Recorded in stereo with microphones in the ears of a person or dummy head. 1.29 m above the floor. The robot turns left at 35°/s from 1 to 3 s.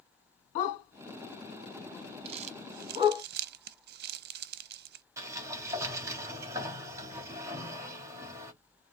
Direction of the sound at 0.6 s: 40° left (ahead or behind).